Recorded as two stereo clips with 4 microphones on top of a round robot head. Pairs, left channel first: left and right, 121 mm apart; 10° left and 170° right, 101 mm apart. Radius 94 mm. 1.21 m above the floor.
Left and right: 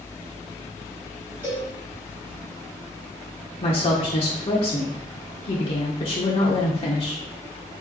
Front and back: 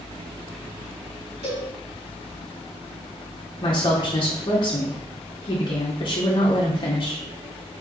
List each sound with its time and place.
1.4 s a cowbell: 165° right, 2 m
3.6 s a woman speaking: 50° left, 1.1 m